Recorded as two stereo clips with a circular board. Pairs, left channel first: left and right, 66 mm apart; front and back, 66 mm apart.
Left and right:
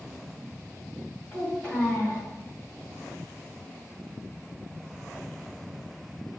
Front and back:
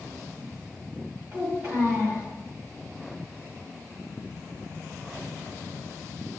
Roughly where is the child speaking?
Behind left.